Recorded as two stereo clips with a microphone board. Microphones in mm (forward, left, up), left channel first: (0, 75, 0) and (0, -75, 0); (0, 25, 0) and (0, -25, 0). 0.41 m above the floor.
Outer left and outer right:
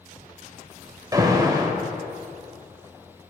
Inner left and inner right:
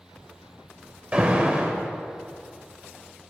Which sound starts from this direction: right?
An alarm, at 1.1 s.